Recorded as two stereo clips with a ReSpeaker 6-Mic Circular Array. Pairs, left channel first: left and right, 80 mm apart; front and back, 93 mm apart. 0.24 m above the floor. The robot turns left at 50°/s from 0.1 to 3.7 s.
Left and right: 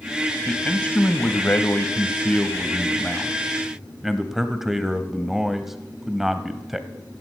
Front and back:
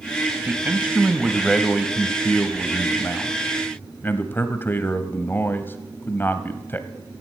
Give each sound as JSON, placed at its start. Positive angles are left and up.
{"t": 0.5, "sound": "a man speaking", "azimuth_deg": 150, "distance_m": 1.0}